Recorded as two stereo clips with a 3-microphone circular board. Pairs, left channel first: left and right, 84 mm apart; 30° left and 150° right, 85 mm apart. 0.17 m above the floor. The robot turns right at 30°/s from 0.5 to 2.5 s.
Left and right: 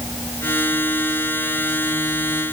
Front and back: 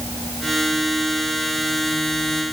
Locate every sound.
Only background noise.